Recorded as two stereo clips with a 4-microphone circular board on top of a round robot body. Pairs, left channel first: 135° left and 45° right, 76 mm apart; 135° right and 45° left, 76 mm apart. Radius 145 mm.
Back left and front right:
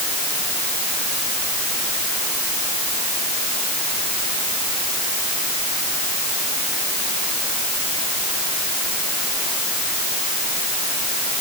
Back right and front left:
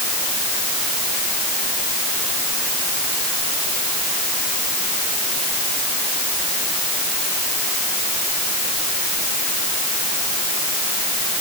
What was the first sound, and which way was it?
Only background noise.